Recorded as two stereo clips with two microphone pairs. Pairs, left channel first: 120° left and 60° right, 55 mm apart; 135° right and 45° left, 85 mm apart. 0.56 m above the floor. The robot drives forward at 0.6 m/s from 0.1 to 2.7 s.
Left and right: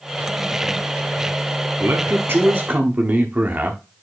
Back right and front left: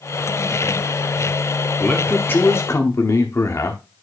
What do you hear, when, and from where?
1.8 s a man speaking: 65° right, 1.1 m; by 3.8 s 105° right, 1.1 m